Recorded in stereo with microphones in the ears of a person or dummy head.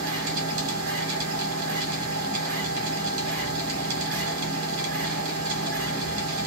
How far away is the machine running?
About 1.2 m.